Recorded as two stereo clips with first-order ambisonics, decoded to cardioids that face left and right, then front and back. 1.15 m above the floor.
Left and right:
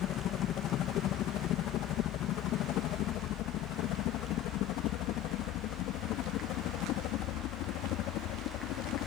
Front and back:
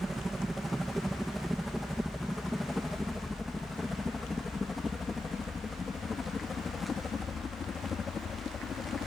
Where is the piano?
No piano in this recording.